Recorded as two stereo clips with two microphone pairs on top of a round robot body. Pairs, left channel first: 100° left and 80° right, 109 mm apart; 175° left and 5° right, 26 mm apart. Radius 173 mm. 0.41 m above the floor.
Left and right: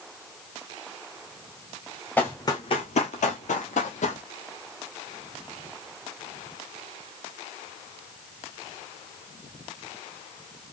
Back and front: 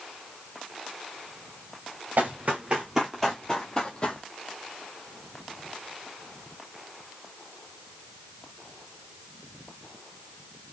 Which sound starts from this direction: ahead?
Running footsteps, at 2.2 s.